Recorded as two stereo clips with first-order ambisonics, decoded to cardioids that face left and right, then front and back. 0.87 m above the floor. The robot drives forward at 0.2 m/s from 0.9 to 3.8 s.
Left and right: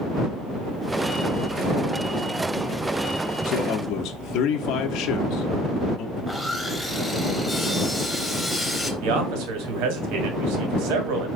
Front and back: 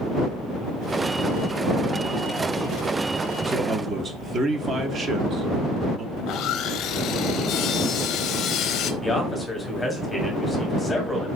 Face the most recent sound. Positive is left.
turn(degrees=-85)